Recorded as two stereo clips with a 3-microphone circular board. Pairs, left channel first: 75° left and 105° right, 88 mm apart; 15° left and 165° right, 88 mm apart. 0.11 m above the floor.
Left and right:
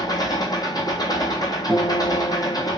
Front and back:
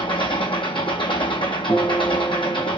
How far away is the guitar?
About 1.2 m.